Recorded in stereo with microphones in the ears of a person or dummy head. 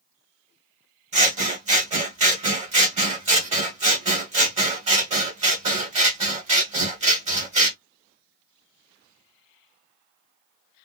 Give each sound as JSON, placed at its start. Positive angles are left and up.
{"t": 1.1, "sound": "scissors", "side_deg": -30, "distance_m": 1.0}